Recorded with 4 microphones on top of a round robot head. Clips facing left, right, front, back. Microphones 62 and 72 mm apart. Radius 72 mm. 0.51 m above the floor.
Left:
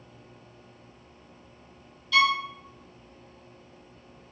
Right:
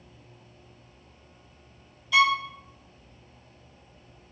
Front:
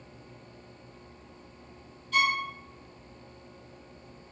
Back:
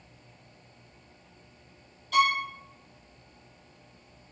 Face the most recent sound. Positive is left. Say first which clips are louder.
# right 1 dB, back 3 dB
turn(degrees=-165)